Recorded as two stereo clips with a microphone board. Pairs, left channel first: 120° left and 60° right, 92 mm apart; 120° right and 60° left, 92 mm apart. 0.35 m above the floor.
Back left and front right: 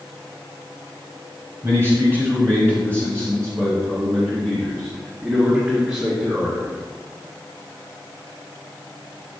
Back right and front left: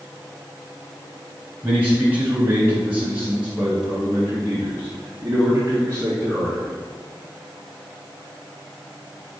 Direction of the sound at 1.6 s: 5° right.